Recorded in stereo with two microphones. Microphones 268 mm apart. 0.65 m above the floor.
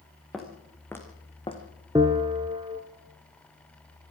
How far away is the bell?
About 1.7 m.